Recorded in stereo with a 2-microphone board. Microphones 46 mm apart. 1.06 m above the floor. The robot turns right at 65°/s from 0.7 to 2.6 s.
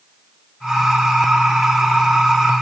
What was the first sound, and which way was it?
Only background noise.